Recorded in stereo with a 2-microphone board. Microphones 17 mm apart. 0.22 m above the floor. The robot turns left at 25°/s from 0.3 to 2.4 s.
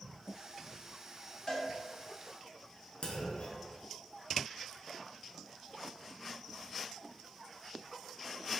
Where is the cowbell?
35° left (ahead or behind), 1.2 m; by 1.6 s 30° left (ahead or behind), 1.2 m.